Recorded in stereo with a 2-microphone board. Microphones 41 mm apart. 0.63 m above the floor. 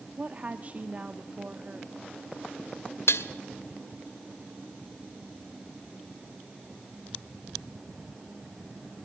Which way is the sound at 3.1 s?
80° left.